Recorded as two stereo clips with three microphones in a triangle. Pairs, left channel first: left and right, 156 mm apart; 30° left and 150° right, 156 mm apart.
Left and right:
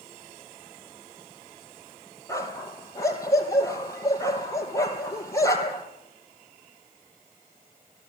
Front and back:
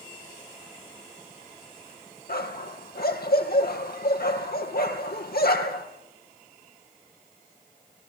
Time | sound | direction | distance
2.3 | a dog barking | 20° left | 4 m